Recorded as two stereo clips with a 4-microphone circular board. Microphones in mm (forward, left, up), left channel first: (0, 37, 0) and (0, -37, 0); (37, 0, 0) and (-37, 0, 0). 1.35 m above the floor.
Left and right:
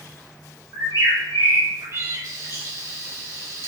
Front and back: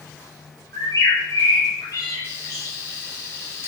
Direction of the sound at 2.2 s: 55° right.